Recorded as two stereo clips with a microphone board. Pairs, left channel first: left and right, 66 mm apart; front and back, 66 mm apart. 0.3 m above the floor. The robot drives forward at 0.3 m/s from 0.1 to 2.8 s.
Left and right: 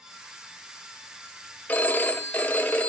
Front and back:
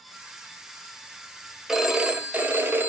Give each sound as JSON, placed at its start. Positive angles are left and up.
{"t": 1.7, "sound": "a phone ringing", "azimuth_deg": 110, "distance_m": 0.7}